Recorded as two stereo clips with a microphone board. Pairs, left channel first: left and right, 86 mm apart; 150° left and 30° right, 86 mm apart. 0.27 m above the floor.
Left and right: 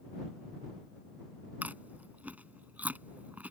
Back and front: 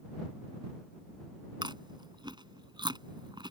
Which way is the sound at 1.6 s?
20° right.